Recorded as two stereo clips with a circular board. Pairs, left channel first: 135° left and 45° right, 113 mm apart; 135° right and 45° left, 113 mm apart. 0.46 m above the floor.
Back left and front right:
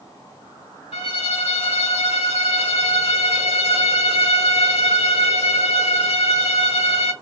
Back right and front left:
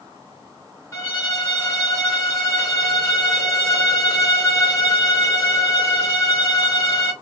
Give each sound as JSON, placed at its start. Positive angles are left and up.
{"t": 0.9, "sound": "a violin", "azimuth_deg": 155, "distance_m": 1.6}